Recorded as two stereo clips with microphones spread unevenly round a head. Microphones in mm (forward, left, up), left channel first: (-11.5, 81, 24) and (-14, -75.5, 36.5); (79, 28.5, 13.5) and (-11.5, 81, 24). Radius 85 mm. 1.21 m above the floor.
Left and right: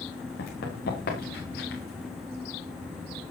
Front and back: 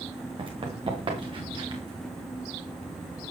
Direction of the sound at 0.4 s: 115° left.